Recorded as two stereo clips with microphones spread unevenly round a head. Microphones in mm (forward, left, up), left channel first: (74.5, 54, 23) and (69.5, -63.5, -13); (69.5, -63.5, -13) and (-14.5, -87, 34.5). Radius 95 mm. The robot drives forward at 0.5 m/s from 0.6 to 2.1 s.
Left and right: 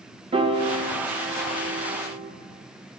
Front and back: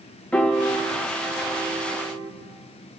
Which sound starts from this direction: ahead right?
A piano, at 0.3 s.